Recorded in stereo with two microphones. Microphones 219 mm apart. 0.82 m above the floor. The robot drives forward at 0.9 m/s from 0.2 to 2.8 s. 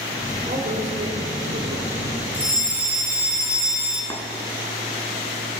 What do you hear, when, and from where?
0.5 s a man speaking: 55° right (ahead or behind), 3 m; by 2.2 s 75° right (ahead or behind), 2.5 m
2.3 s a fire alarm: 10° right (ahead or behind), 4.5 m
4.1 s tapping: 15° left (ahead or behind), 1.8 m